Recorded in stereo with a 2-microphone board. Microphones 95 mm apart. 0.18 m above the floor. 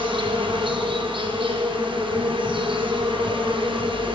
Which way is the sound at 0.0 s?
65° right (ahead or behind).